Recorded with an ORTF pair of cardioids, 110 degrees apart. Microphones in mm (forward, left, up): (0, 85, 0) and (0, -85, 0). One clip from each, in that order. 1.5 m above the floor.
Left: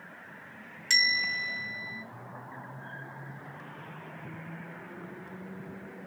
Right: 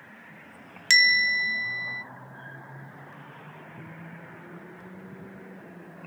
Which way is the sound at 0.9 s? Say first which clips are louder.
Right 6 dB; 55° right.